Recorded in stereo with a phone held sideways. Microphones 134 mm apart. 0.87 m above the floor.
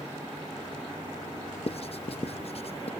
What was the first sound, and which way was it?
Writing, 55° left (ahead or behind).